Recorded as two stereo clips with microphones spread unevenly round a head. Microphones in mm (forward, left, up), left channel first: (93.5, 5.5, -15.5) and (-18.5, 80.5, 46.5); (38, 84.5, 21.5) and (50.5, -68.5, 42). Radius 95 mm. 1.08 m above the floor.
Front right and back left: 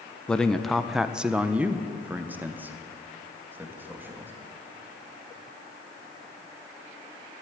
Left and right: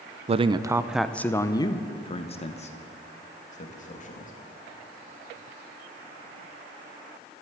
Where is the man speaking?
60° right, 0.6 m; by 4.3 s 65° left, 2 m.